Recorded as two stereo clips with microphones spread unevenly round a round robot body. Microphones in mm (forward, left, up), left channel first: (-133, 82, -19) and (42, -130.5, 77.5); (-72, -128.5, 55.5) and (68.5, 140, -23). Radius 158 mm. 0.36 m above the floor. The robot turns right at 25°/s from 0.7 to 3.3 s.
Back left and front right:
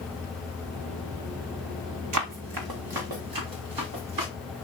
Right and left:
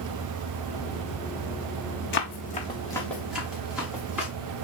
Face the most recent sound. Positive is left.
turn(degrees=-25)